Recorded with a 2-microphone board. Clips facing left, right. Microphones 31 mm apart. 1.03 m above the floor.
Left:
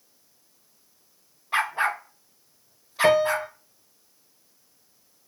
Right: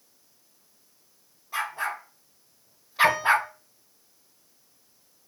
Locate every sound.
1.5 s a dog barking: 45° left (ahead or behind), 1.2 m; by 3.5 s 40° right (ahead or behind), 0.8 m
3.0 s a piano: 55° left (ahead or behind), 1.3 m